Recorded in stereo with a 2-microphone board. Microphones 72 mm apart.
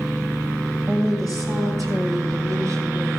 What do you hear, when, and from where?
0.9 s a woman speaking: 40° right (ahead or behind), 2.5 m; by 3.1 s 50° right (ahead or behind), 2 m